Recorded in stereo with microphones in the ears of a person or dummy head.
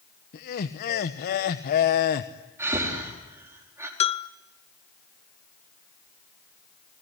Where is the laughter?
50° left (ahead or behind), 1.1 m.